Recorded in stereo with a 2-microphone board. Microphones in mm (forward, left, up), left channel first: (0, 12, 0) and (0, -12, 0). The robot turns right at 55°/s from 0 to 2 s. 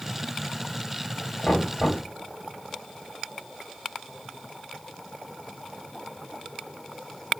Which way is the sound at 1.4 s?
120° left.